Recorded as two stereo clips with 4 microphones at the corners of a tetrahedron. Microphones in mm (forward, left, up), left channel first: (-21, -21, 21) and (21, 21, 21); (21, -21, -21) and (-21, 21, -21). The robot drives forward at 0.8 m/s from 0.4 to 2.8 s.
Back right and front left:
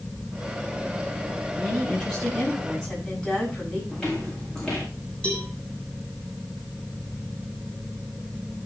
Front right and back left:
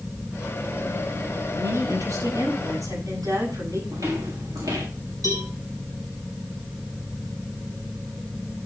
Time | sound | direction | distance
1.5 | a woman speaking | 130° left | 8 m
3.9 | footsteps | 140° left | 5 m
5.2 | a cowbell | 150° left | 5.5 m